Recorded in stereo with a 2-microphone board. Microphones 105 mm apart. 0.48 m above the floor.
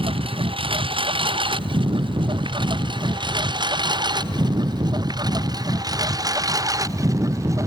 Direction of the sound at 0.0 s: 60° right (ahead or behind).